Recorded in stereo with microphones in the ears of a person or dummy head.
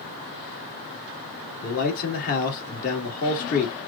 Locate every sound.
1.6 s a man speaking: 50° left (ahead or behind), 2 m